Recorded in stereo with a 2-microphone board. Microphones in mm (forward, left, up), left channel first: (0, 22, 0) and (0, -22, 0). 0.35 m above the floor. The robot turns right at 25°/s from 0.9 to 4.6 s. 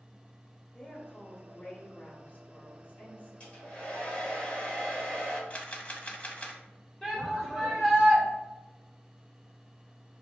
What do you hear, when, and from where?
0.7 s a woman speaking: 45° left, 1.3 m; by 3.3 s 105° left, 1.3 m
3.4 s a hair dryer: 30° left (ahead or behind), 1.5 m
5.5 s a camera shutter: 35° left (ahead or behind), 0.6 m
7.0 s a shout: 10° left (ahead or behind), 1.2 m